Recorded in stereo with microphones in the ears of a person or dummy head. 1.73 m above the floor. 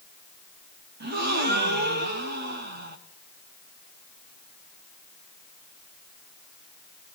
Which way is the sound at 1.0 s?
50° right (ahead or behind).